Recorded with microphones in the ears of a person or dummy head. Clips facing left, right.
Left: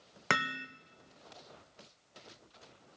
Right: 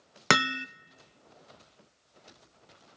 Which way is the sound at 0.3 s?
70° right (ahead or behind).